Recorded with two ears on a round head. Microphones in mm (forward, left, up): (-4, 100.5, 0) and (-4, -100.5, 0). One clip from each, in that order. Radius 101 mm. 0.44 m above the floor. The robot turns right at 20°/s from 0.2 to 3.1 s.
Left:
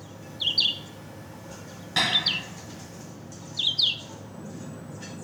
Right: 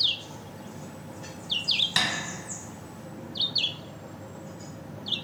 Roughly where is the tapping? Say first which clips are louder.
Left 4 dB; right.